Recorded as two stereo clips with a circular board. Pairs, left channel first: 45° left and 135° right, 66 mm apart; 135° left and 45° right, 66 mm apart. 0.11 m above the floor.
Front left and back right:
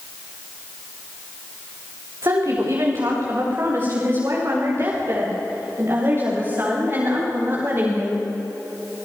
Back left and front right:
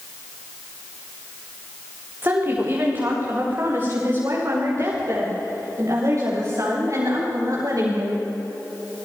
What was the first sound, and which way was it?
A woman speaking, 100° right.